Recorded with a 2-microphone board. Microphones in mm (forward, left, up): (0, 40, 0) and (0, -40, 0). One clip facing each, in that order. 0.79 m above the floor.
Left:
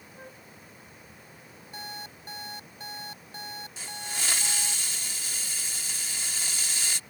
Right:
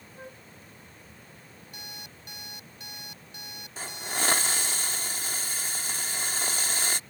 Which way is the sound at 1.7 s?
35° left (ahead or behind).